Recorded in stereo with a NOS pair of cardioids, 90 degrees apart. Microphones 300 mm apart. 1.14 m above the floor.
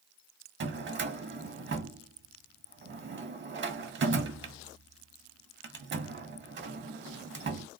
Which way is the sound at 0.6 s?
40° right.